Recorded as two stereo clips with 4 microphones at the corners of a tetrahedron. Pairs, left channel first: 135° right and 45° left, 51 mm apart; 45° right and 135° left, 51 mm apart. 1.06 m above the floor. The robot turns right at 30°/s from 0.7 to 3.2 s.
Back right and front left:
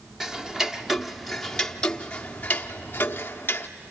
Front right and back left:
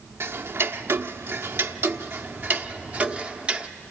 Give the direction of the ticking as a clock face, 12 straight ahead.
8 o'clock.